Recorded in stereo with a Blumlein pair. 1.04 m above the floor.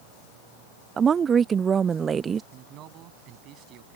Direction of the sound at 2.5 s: 35° right.